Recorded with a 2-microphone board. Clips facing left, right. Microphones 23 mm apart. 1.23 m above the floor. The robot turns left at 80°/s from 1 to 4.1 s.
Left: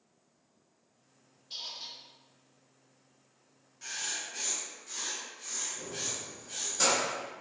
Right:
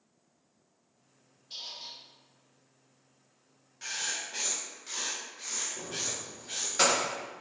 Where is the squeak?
170° left, 0.8 m; by 2.0 s 135° left, 0.8 m.